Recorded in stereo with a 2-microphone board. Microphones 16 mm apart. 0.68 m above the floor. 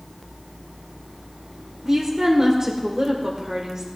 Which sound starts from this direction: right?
A woman speaking, at 1.8 s.